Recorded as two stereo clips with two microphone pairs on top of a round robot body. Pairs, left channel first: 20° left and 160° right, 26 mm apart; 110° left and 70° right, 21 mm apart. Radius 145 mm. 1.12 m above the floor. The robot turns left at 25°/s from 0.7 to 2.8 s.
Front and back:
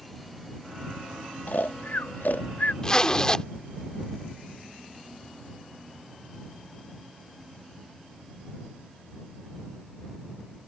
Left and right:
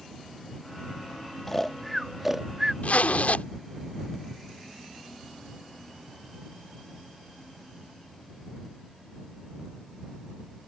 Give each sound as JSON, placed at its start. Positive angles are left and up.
{"t": 1.5, "sound": "snoring", "azimuth_deg": 35}
{"t": 2.8, "sound": "a zipper", "azimuth_deg": 90}